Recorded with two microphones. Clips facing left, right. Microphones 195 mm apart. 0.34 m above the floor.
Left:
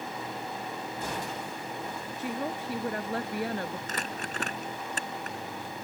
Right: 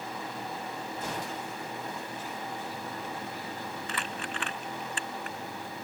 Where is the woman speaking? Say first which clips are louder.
Left 5 dB; 70° left (ahead or behind).